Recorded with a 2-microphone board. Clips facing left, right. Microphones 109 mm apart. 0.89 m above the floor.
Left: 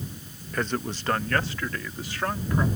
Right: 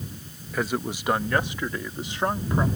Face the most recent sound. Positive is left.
turn(degrees=-25)  # may be behind; listen again after turning